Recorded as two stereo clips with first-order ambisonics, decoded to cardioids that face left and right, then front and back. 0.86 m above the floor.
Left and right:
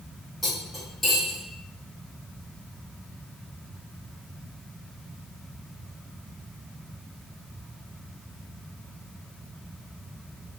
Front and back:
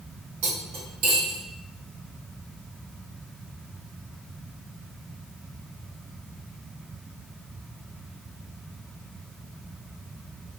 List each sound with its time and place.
0.4 s cutlery clinking: 170° left, 1.5 m